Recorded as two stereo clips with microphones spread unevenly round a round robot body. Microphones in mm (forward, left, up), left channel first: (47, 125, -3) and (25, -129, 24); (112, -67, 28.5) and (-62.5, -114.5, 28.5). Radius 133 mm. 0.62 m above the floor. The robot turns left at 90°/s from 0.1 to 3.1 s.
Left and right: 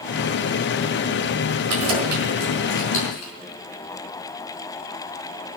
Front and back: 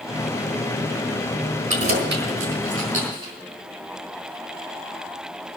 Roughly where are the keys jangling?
Behind right.